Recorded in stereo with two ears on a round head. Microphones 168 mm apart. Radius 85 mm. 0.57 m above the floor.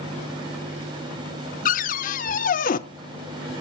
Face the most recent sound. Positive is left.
turn(degrees=45)  # may be behind; listen again after turning